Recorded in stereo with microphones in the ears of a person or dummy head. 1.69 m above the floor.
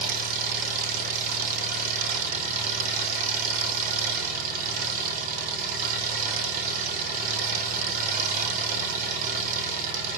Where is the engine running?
50° right (ahead or behind), 2.5 m.